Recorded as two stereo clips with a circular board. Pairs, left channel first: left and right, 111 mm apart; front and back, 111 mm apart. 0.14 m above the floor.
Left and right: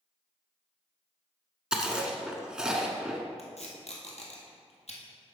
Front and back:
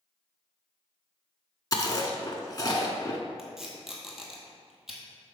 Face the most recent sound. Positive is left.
turn(degrees=95)